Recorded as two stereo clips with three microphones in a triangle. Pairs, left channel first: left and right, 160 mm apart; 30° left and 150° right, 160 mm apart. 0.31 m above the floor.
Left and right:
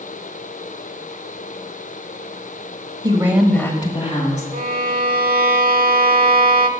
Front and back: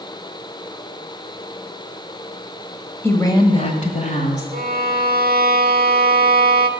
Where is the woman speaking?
40° right, 1.4 m; by 4.4 s 60° left, 2 m.